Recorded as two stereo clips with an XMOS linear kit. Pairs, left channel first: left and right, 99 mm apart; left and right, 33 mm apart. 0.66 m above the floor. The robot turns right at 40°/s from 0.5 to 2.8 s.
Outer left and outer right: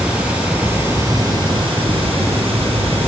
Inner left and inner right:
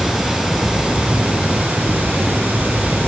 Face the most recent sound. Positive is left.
turn(degrees=-75)